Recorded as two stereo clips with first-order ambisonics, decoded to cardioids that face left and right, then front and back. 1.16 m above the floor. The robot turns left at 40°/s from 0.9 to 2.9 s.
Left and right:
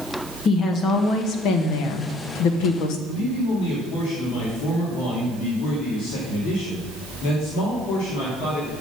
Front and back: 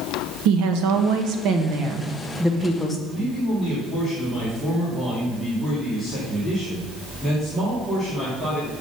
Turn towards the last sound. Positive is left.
turn(degrees=85)